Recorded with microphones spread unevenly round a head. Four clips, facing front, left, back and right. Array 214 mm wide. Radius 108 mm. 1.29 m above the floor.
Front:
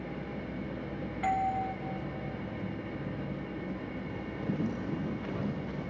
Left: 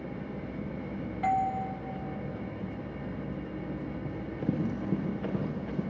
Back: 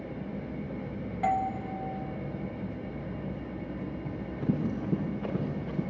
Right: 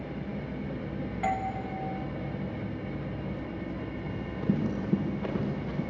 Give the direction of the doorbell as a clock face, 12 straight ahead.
5 o'clock.